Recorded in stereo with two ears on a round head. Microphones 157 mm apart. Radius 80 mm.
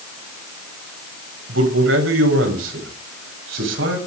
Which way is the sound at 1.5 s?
85° right.